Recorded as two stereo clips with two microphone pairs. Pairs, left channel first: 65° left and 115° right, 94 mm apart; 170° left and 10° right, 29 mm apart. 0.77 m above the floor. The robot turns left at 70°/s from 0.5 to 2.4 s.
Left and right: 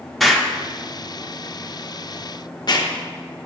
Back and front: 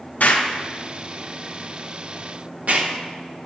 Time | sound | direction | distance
0.2 | an explosion | 155° left | 0.6 m